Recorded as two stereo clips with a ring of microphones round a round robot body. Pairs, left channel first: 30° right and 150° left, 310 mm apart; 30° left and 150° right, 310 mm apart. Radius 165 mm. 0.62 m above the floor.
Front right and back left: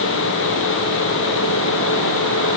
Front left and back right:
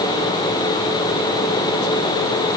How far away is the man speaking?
I don't hear a man speaking.